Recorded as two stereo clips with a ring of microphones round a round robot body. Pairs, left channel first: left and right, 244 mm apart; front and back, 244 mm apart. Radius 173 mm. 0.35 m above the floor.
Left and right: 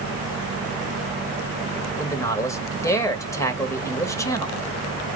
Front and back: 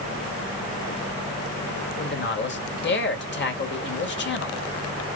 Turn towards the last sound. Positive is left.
turn(degrees=15)